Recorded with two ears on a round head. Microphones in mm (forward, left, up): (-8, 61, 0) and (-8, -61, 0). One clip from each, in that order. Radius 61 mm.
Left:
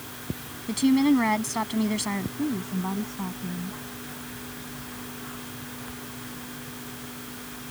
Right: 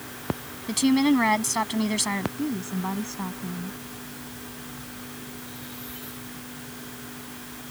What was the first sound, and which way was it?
A woman speaking, 35° right (ahead or behind).